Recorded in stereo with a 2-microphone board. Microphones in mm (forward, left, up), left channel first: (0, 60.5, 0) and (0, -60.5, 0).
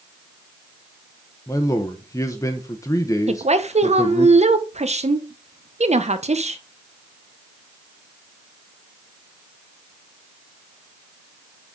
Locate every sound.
1.5 s a man speaking: 30° left (ahead or behind), 0.8 m
3.3 s a woman speaking: 65° right (ahead or behind), 0.8 m